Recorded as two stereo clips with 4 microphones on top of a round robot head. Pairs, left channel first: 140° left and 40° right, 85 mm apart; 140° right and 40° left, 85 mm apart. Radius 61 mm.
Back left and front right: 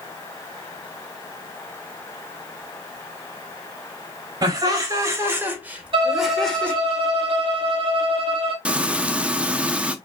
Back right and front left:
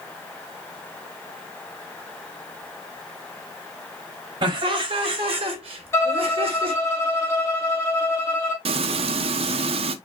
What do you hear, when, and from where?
4.4 s laughter: 5° left, 3.5 m; by 6.8 s 65° left, 2.5 m
5.9 s a violin: 75° right, 1.5 m
8.7 s frying: 35° left, 0.7 m